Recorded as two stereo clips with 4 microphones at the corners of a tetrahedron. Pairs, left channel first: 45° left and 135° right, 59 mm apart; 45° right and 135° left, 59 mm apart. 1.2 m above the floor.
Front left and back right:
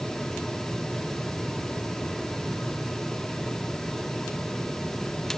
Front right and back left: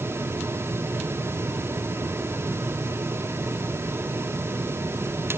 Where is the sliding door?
I don't hear a sliding door.